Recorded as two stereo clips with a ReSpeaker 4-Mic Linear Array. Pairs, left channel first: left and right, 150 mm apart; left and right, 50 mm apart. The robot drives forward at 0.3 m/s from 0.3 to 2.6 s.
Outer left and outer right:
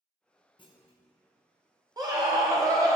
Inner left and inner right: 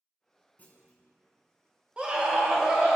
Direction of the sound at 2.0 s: 25° right (ahead or behind).